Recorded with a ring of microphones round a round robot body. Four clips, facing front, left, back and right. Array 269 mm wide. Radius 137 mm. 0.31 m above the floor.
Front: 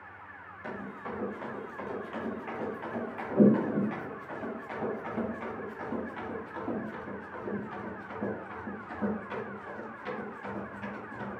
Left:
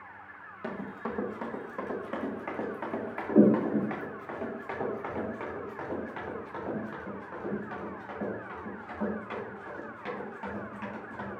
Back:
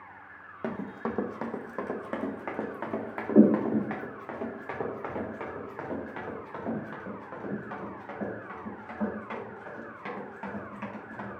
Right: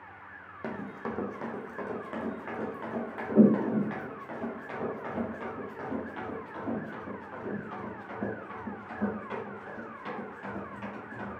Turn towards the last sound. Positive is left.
turn(degrees=165)